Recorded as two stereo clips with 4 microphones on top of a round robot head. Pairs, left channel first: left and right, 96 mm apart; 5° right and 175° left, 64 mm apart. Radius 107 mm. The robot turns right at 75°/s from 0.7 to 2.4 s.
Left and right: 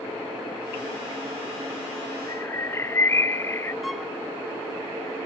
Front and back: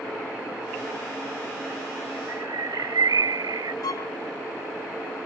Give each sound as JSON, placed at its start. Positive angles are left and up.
{"t": 2.3, "sound": "a bird", "azimuth_deg": 145}
{"t": 3.8, "sound": "a violin", "azimuth_deg": 0}